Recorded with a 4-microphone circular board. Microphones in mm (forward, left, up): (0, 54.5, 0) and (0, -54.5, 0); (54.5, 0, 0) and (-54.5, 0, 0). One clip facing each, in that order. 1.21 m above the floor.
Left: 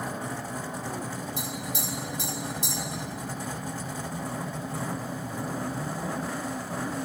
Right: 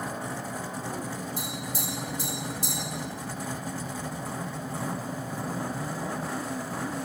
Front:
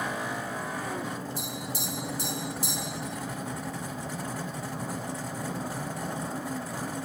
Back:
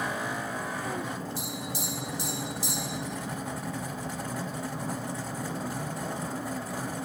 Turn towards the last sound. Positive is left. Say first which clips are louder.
# left 1 dB, even
turn(degrees=-40)